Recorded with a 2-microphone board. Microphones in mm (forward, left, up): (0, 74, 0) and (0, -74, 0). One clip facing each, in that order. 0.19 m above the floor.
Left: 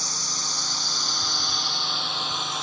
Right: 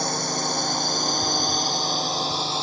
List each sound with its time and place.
0.0 s a drone: 60° right (ahead or behind); by 2.6 s 30° right (ahead or behind)